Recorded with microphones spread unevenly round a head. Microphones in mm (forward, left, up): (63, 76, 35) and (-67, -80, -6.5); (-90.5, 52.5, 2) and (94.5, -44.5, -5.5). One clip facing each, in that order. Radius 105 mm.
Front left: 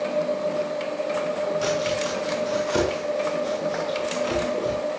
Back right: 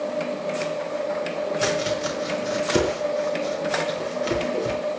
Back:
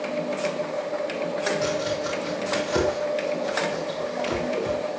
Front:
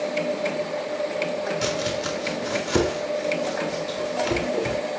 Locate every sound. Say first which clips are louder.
1.6 s chopping: even, even; 70° right, 4.5 m